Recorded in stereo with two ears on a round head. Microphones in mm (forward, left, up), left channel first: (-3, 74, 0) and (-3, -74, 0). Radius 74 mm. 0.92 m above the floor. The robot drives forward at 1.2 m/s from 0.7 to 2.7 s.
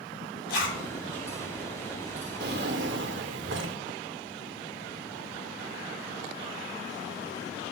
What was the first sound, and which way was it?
A zipper, 85° left.